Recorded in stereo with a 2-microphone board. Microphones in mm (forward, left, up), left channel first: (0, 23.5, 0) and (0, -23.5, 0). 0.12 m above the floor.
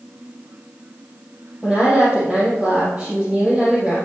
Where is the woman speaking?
5° right (ahead or behind), 3 m.